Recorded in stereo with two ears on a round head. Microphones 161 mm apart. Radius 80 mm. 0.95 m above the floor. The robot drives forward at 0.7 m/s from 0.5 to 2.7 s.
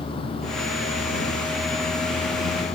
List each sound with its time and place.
0.0 s a vehicle: 30° left (ahead or behind); by 2.8 s 35° left (ahead or behind)